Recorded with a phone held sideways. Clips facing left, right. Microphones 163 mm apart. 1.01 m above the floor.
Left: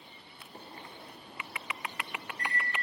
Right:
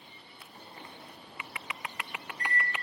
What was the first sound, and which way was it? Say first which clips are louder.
A microwave: left 1 dB; 70° left (ahead or behind).